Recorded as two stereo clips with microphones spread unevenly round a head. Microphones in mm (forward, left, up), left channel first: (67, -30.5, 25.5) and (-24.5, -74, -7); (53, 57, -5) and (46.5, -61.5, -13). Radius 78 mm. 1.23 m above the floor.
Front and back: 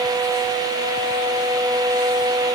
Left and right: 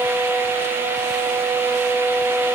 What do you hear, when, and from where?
Only background noise.